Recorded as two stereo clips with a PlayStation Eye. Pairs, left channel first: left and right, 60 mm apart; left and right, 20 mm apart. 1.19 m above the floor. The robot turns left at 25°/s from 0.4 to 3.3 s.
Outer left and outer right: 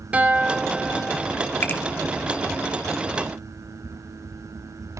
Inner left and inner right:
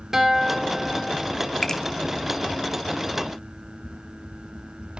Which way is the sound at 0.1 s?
25° right (ahead or behind).